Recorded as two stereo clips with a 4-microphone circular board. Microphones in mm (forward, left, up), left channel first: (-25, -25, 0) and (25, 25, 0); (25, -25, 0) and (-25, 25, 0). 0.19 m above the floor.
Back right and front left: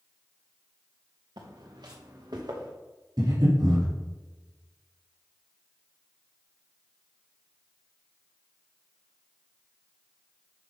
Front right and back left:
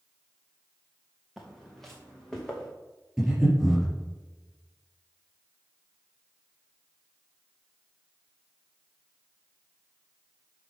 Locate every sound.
1.4 s footsteps: 45° left, 2.0 m; by 2.7 s 40° left, 3 m
3.2 s breathing: 45° left, 3 m